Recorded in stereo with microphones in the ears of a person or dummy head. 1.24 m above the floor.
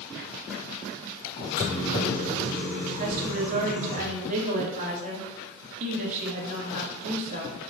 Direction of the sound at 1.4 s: 60° left (ahead or behind).